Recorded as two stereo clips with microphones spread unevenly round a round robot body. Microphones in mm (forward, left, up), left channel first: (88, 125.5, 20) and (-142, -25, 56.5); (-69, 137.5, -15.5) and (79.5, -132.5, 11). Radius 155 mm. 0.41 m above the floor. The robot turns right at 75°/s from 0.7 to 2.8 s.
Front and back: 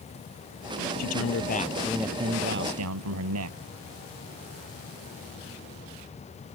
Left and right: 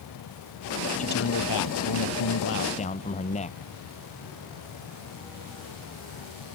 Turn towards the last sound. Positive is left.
turn(degrees=-175)